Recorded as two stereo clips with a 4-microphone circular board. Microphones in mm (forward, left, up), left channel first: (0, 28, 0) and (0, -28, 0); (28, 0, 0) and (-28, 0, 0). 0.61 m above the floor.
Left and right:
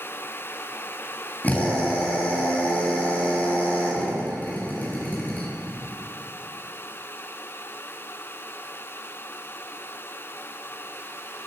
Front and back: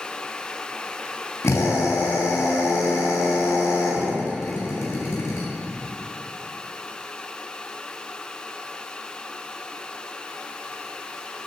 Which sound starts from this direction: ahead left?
A drill, at 1.4 s.